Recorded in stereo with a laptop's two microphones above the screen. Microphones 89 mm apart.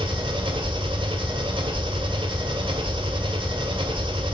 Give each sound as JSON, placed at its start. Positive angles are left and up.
{"t": 0.0, "sound": "an engine running", "side_deg": -70, "distance_m": 1.9}